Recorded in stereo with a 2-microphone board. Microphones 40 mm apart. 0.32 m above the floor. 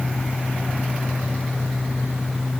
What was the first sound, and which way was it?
Only background noise.